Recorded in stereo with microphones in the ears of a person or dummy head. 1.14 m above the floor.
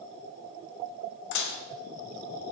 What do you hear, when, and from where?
1.3 s dishes clattering: 65° left (ahead or behind), 0.7 m